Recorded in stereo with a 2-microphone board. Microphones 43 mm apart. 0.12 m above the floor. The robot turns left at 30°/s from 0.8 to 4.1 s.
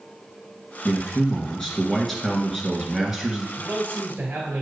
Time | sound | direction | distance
0.8 | a man speaking | 50° left | 1.5 m
3.6 | a man speaking | 45° right (ahead or behind) | 2.5 m